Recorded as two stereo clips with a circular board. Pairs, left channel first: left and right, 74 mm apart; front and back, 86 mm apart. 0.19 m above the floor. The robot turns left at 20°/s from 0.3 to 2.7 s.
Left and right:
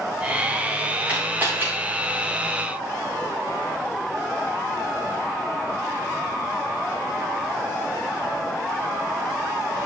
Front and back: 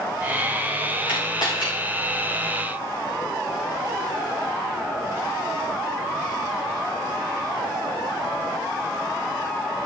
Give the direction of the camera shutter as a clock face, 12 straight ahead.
1 o'clock.